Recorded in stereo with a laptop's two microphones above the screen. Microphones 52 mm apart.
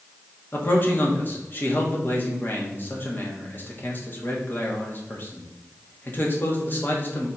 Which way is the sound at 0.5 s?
40° left (ahead or behind).